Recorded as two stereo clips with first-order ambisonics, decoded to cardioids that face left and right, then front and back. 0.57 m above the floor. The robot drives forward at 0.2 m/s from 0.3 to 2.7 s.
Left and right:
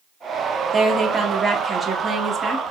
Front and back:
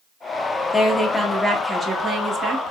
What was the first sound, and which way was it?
A woman speaking, 70° right.